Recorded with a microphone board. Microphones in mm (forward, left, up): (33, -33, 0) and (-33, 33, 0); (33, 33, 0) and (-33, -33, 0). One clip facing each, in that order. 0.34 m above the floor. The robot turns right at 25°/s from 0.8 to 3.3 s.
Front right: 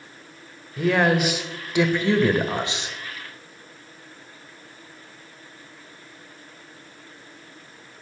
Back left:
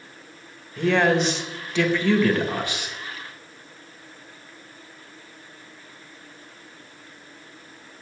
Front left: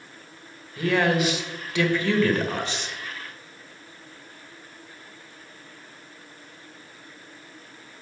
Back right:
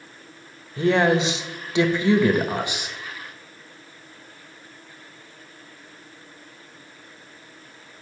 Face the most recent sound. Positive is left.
turn(degrees=-60)